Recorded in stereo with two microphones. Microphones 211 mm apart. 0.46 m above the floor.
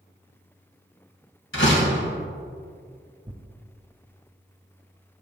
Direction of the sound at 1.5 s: 70° left (ahead or behind).